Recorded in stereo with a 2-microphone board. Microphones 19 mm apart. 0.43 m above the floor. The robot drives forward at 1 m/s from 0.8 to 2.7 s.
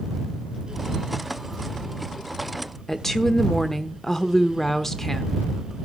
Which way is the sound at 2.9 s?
20° left (ahead or behind).